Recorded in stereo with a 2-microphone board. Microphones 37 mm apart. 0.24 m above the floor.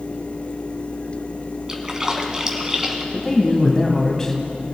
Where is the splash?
20° right (ahead or behind), 1.3 m.